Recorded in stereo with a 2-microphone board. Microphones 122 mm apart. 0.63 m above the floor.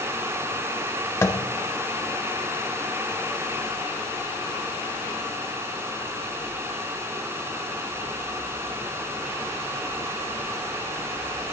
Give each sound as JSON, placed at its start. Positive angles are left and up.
{"t": 1.2, "sound": "tapping", "side_deg": 20, "distance_m": 1.1}